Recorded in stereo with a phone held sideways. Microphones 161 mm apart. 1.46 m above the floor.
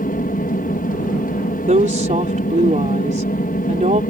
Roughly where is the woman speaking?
Right.